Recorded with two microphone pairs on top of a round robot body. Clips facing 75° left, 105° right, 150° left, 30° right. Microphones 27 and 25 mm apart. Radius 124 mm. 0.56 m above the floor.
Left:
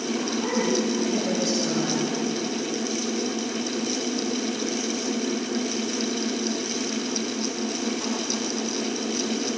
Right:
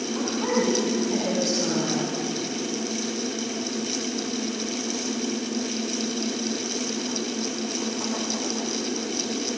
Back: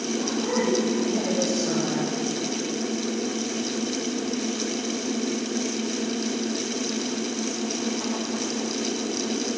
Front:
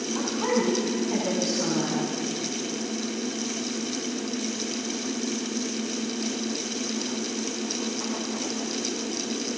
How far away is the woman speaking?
About 7 m.